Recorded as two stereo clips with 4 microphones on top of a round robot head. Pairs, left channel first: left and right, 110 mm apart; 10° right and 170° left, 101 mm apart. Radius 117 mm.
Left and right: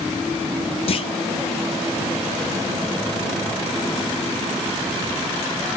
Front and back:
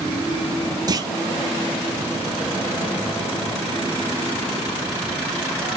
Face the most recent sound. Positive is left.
turn(degrees=120)